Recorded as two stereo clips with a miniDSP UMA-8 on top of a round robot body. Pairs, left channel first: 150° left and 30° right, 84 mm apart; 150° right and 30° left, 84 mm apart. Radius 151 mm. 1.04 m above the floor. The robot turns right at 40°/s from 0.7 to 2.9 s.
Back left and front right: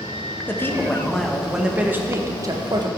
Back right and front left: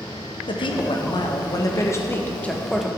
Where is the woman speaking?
145° right, 1.7 m; by 2.9 s 60° right, 1.7 m.